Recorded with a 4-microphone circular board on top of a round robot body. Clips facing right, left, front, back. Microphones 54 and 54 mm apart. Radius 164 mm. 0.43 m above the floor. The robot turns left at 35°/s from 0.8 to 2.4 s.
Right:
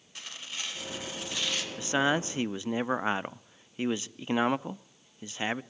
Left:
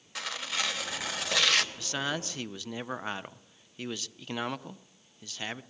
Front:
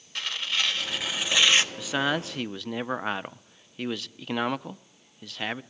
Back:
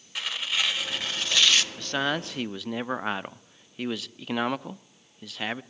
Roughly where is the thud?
No thud in this recording.